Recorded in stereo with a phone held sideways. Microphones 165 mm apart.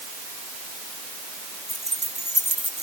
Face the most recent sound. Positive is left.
turn(degrees=-45)  # may be behind; listen again after turning